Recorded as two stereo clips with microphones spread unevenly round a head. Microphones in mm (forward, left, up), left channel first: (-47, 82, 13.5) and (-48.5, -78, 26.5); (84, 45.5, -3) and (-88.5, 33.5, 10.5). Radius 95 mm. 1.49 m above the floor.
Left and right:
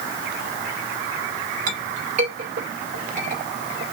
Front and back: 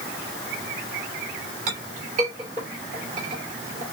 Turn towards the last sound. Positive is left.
turn(degrees=-120)